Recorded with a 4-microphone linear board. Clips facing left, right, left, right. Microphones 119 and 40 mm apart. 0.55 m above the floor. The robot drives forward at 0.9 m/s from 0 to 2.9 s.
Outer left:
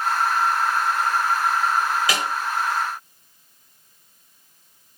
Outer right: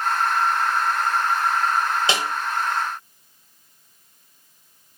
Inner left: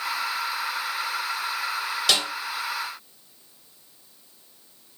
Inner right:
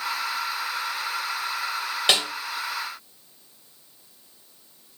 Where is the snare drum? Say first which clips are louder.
Outer right 1 dB, inner right 2 dB; 25° right (ahead or behind), 2 m.